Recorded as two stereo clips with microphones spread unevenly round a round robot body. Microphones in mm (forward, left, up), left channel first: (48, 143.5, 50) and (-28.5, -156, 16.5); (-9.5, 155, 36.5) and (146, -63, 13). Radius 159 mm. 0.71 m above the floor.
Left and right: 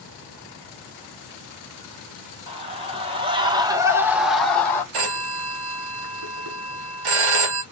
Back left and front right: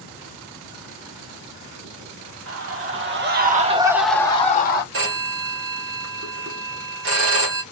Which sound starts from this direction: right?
A phone ringing, at 4.9 s.